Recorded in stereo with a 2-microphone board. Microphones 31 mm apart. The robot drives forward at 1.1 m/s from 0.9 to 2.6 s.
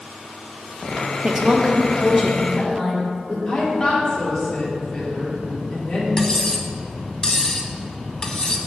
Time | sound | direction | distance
1.2 | a woman speaking | 30° right (ahead or behind) | 0.6 m
3.5 | a woman speaking | 5° left (ahead or behind) | 2 m
6.2 | cutlery clinking | 25° left (ahead or behind) | 0.5 m